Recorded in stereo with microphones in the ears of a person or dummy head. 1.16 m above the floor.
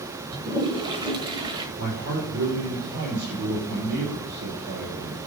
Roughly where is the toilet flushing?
Right.